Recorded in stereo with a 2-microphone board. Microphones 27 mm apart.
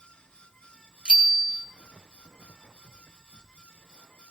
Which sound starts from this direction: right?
A bicycle bell, at 1.1 s.